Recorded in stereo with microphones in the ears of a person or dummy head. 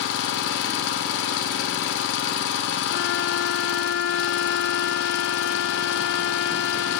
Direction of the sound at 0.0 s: 65° left (ahead or behind).